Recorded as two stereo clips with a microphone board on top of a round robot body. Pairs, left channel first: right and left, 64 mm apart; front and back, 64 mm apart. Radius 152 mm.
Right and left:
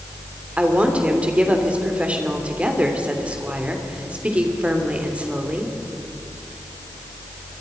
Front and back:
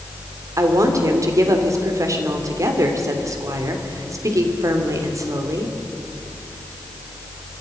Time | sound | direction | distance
0.6 | a woman speaking | 160° left | 3 m